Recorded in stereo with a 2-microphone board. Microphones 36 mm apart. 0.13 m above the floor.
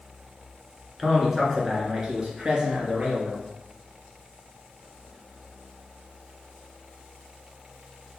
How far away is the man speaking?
About 1.3 m.